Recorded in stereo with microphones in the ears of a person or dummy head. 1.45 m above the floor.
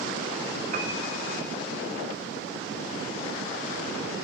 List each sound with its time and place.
0.7 s a piano: 50° right (ahead or behind), 0.7 m